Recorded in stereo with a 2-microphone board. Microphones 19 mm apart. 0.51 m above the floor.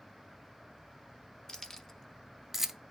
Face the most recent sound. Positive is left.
turn(degrees=-20)  # may be behind; listen again after turning